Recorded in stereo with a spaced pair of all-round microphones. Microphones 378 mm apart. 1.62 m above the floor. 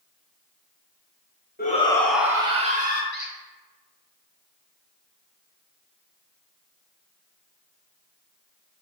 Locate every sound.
1.6 s a shout: 25° left (ahead or behind), 1.1 m; by 3.0 s 25° right (ahead or behind), 1.8 m
3.1 s a squeak: 25° right (ahead or behind), 1.2 m